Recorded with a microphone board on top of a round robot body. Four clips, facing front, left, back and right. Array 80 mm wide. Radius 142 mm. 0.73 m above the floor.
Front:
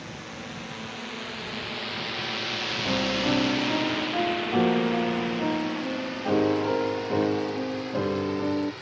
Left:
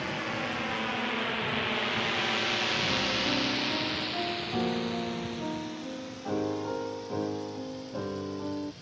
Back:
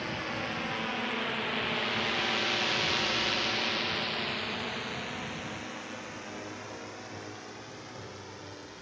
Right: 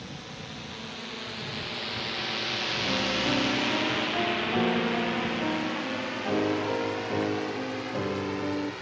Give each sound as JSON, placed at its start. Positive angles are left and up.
{"t": 0.0, "sound": "a drone", "azimuth_deg": 120}
{"t": 2.9, "sound": "a piano", "azimuth_deg": -10}